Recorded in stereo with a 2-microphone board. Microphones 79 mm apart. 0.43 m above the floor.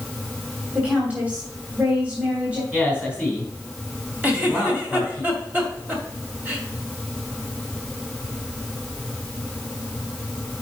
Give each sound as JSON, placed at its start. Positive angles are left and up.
{"t": 0.8, "sound": "a woman speaking", "side_deg": -15, "distance_m": 2.5}
{"t": 2.7, "sound": "a man speaking", "side_deg": -15, "distance_m": 3.0}
{"t": 4.2, "sound": "a giggle", "side_deg": -20, "distance_m": 2.5}